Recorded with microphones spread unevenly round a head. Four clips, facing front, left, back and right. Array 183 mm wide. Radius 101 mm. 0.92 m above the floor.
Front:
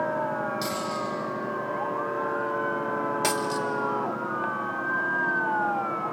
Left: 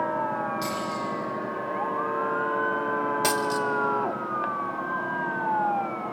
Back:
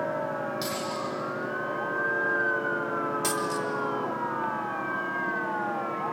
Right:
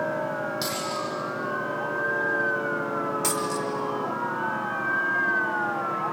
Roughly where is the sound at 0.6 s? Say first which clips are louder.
Even, front 2 dB; ahead right.